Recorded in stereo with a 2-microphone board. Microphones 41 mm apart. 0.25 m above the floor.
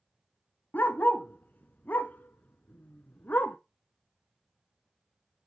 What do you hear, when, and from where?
0.7 s a dog barking: 50° left (ahead or behind), 0.7 m